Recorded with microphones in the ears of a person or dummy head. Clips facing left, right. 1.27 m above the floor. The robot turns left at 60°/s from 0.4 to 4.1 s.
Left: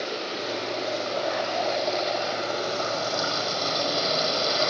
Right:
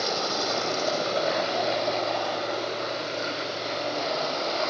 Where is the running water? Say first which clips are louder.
Right 2 dB; 95° right, 8 m; by 4.7 s 45° left, 8 m.